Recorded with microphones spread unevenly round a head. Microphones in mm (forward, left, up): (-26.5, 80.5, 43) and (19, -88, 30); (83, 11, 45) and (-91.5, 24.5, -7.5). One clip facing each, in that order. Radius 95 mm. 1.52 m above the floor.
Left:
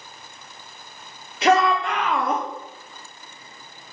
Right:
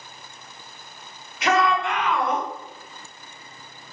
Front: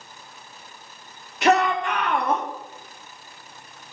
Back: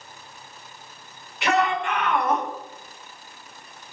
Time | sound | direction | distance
1.4 | a shout | 45° left | 3.5 m